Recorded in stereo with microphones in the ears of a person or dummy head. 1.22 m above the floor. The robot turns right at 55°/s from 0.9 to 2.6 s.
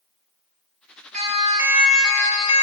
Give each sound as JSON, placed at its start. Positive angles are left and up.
{"t": 1.1, "sound": "a siren", "side_deg": -40, "distance_m": 6.5}